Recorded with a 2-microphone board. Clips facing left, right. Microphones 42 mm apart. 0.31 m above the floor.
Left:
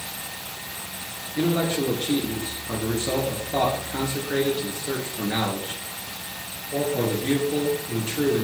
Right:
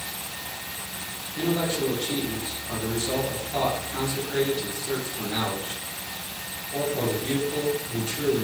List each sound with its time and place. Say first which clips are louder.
1.4 s a man speaking: left 2 dB; 50° left (ahead or behind), 4.5 m